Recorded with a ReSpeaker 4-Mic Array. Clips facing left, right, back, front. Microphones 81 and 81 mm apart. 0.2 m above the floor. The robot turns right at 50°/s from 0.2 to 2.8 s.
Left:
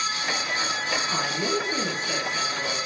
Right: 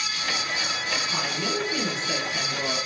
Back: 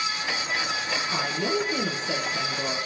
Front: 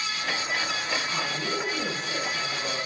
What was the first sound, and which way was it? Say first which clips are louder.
A woman speaking: left 3 dB, back 3 dB; 130° left.